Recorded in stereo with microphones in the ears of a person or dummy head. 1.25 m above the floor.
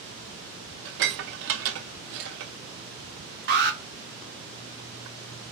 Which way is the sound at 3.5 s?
50° right (ahead or behind).